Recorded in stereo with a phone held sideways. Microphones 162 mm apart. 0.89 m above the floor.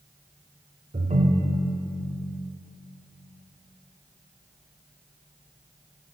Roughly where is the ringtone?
Right.